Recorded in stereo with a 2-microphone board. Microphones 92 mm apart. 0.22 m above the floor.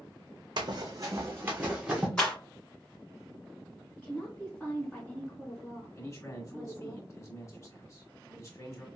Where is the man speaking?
35° left (ahead or behind), 1.2 m.